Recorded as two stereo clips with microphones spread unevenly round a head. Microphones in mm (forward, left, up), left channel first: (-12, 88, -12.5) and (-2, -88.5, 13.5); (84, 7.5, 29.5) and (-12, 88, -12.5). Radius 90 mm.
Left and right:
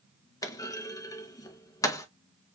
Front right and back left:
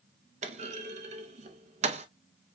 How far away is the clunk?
About 0.7 m.